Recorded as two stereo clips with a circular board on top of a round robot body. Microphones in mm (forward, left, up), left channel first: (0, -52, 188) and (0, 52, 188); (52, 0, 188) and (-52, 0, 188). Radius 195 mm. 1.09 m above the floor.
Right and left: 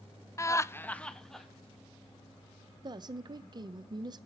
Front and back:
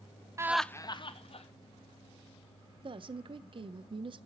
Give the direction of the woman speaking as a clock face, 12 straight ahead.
7 o'clock.